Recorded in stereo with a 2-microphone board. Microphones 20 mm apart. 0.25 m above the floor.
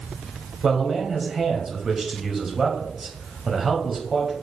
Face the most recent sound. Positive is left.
turn(degrees=-15)  # may be behind; listen again after turning